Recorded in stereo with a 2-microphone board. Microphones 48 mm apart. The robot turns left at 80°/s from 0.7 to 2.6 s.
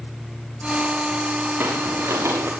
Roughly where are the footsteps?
Ahead right.